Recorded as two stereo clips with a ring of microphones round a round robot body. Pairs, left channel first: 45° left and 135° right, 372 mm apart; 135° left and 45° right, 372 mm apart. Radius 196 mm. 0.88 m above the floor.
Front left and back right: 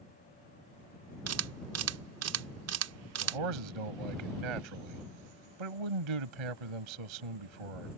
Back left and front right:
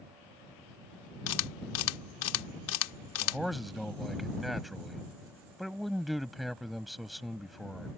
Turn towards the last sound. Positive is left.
turn(degrees=-135)